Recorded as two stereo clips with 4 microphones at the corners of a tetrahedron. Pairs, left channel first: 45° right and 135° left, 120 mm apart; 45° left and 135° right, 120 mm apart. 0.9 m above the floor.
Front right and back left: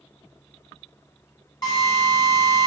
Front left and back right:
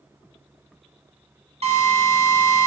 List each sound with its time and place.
1.6 s a drill: 100° right, 3 m